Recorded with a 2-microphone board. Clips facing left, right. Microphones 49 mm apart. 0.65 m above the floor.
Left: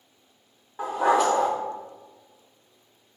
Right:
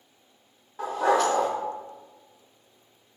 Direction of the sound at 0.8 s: 15° left (ahead or behind).